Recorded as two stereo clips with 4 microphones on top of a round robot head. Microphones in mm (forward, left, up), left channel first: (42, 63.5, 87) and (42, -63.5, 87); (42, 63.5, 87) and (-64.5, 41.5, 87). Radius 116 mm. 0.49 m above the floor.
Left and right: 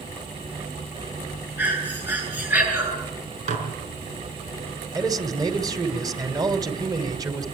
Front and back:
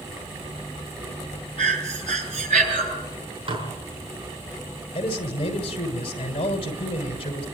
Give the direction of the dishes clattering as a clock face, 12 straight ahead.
4 o'clock.